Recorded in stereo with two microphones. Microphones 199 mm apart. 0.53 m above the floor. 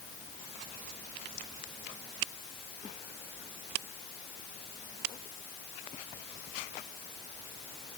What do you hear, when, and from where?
Only background noise.